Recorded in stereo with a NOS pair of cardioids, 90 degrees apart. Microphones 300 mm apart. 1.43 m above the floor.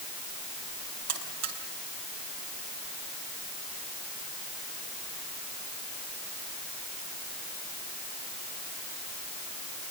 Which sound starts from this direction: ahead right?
A buzzer, at 1.1 s.